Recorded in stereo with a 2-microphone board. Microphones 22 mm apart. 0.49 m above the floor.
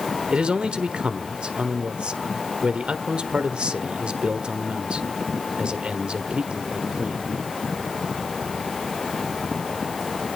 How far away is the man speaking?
About 1.3 m.